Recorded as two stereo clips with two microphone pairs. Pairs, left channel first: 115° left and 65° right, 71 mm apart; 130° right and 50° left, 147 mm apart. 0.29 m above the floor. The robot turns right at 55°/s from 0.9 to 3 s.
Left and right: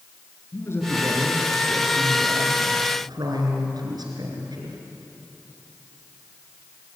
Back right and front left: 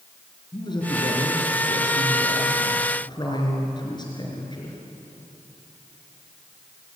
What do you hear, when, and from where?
0.5 s a man speaking: 170° left, 4.5 m; by 4.8 s 75° right, 4.5 m